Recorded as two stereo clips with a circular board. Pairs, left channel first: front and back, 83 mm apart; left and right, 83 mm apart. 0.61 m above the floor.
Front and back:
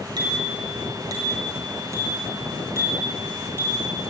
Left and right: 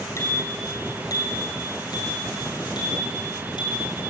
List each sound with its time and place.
0.2 s a bicycle bell: 145° left, 7 m; by 4.1 s 110° left, 10 m